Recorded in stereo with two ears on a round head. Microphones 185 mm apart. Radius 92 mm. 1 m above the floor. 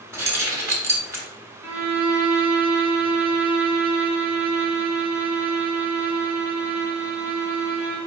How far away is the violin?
About 2 m.